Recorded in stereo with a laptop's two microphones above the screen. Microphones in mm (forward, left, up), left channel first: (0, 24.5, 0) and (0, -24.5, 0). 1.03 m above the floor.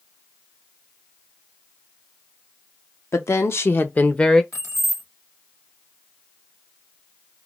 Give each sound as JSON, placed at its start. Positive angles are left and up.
{"t": 3.1, "sound": "a woman speaking", "side_deg": 75, "distance_m": 0.7}
{"t": 4.5, "sound": "keys jangling", "side_deg": 85, "distance_m": 1.2}